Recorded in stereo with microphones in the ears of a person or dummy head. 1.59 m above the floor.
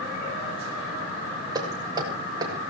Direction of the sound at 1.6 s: 30° right (ahead or behind).